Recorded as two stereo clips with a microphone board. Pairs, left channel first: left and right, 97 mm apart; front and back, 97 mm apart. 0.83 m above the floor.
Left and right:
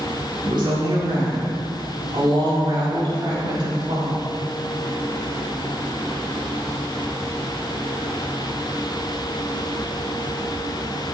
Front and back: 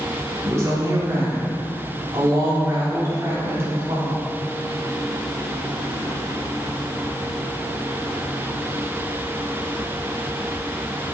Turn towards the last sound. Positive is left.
turn(degrees=-120)